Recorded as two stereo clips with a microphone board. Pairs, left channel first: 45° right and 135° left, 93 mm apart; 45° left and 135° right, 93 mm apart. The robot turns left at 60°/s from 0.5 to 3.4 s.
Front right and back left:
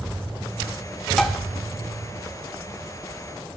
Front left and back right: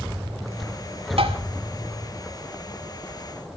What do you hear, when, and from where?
1.2 s tapping: 130° right, 1.8 m; by 1.4 s 145° right, 1.8 m